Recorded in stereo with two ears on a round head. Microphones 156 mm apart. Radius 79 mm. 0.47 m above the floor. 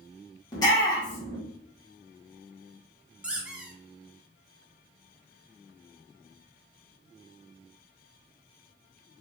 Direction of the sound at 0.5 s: 25° left (ahead or behind).